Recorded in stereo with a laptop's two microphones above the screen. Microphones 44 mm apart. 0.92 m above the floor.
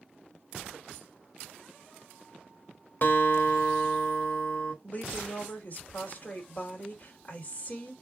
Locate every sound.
3.0 s a guitar: 55° left (ahead or behind), 1.3 m
4.8 s a woman speaking: 40° left (ahead or behind), 2 m